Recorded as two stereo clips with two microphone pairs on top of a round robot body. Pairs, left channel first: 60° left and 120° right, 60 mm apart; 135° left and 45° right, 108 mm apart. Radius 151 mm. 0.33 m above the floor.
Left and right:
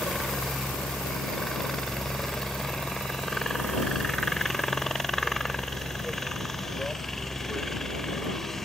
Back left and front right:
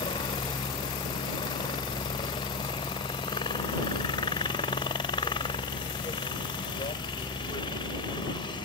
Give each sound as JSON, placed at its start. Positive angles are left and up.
{"t": 0.0, "sound": "a helicopter", "azimuth_deg": 140}